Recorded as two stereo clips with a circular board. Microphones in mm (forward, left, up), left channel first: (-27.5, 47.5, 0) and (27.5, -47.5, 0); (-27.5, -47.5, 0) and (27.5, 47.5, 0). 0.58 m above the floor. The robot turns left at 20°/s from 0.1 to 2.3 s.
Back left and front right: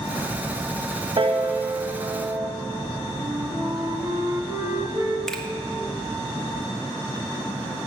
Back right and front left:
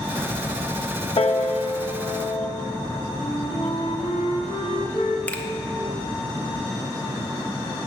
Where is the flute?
110° right, 0.8 m.